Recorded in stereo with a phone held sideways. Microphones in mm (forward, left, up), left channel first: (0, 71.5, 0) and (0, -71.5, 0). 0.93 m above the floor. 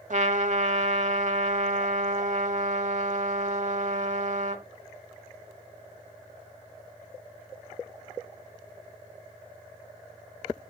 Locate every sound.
0.1 s a trumpet: 55° right (ahead or behind), 1.4 m